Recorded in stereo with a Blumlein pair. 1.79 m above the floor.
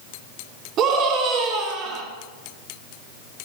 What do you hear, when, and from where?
0.8 s a scream: 35° right, 4.5 m